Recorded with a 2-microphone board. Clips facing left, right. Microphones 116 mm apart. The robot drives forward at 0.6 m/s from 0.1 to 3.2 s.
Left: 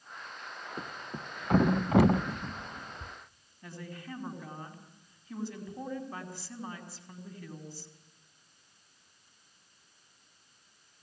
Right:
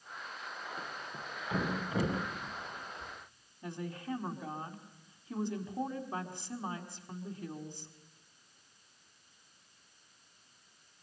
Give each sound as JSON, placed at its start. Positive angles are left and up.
{"t": 0.8, "sound": "a thud", "side_deg": 45, "distance_m": 1.4}
{"t": 3.6, "sound": "a woman speaking", "side_deg": -20, "distance_m": 5.0}